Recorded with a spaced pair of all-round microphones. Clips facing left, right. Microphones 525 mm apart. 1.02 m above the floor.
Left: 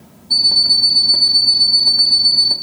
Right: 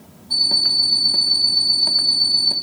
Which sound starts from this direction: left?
An alarm clock, at 0.3 s.